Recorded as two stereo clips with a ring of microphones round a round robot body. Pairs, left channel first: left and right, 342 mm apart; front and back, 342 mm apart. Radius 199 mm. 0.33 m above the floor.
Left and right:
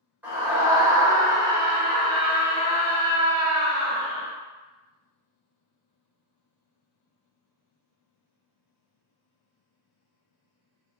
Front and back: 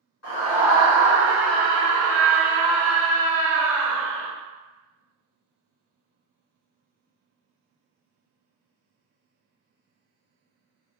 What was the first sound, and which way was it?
A scream, 5° right.